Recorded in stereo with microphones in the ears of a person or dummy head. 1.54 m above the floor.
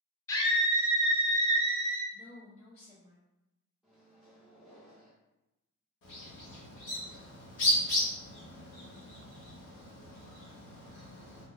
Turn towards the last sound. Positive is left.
turn(degrees=65)  # may be behind; listen again after turning